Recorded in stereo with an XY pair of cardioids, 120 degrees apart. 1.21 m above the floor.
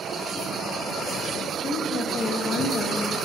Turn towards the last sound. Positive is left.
turn(degrees=40)